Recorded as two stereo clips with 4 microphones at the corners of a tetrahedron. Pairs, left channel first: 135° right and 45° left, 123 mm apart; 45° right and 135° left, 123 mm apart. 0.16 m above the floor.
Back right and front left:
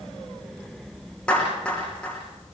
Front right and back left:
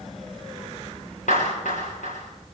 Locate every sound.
1.3 s a clap: 50° right, 9 m